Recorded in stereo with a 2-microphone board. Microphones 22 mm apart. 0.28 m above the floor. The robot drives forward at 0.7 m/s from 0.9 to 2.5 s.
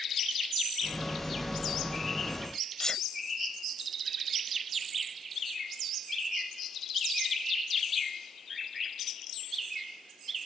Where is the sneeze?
25° left (ahead or behind).